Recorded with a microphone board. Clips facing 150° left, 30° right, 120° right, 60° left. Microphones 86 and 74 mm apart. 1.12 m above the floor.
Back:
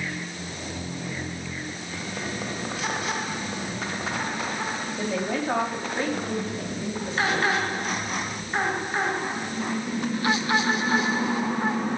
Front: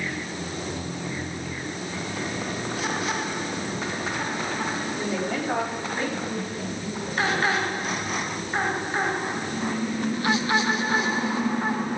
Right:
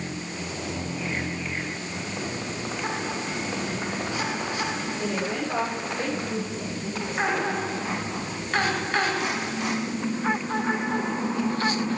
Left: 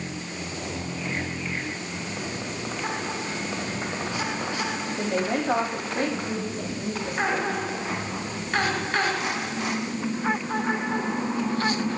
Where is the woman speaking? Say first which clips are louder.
Back 2 dB, left 5 dB; 95° left, 7 m; by 7.6 s 85° left, 8 m.